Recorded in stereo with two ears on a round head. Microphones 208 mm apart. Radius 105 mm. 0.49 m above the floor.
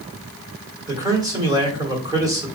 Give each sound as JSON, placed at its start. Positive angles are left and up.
{"t": 0.9, "sound": "a man speaking", "side_deg": -15, "distance_m": 1.5}